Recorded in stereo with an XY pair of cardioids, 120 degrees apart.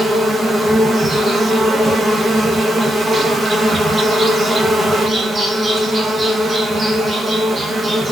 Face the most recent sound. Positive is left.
turn(degrees=-20)